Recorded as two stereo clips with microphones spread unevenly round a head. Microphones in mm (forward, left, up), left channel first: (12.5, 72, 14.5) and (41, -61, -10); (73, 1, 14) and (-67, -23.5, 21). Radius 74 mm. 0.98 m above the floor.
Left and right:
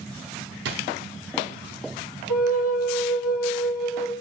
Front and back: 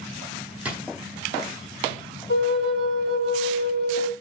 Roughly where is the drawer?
Right.